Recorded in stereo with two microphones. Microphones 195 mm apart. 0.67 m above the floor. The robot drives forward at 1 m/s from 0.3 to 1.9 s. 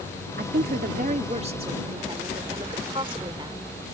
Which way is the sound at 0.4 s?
55° right (ahead or behind).